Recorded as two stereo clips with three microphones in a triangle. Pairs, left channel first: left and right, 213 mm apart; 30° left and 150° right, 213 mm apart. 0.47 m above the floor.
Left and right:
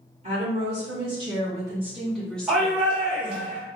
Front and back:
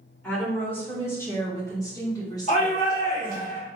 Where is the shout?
5° right, 1.8 m.